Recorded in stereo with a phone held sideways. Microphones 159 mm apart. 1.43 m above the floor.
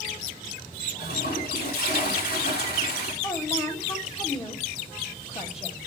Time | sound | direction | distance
0.9 | a toilet flushing | 85° left | 4 m
3.2 | a woman speaking | 40° left (ahead or behind) | 3 m